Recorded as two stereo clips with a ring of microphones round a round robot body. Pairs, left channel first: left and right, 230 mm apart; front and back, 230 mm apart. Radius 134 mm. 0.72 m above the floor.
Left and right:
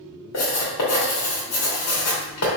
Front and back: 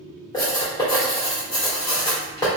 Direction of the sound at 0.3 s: 75° left.